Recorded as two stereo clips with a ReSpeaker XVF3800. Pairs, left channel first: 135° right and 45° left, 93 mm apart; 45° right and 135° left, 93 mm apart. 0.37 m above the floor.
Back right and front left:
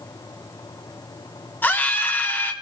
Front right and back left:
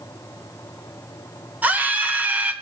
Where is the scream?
175° right, 1.0 m.